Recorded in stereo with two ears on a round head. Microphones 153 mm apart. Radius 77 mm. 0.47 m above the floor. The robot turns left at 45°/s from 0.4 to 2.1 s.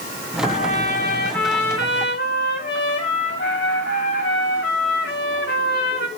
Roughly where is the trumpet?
Behind left.